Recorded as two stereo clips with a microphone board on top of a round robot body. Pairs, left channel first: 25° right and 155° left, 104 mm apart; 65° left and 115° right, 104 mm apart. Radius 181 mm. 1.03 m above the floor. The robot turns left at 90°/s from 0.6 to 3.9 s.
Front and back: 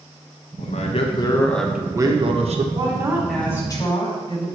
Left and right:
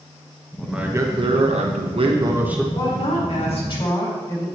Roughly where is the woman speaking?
Behind left.